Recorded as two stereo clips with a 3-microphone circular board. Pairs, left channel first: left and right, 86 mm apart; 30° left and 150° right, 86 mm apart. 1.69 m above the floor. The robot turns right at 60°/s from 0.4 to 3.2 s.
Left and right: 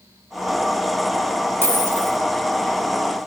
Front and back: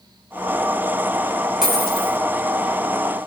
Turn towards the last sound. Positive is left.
turn(degrees=25)